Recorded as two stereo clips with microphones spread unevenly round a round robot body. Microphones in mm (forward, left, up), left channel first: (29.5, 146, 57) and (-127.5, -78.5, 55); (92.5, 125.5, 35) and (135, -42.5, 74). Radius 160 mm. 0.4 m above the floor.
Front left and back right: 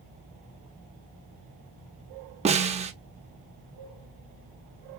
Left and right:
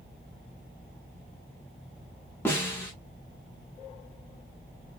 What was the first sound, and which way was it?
A snare drum, 170° left.